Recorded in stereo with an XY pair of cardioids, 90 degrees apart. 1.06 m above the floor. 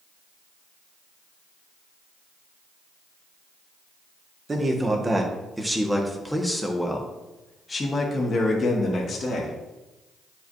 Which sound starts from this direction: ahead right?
A man speaking, at 4.5 s.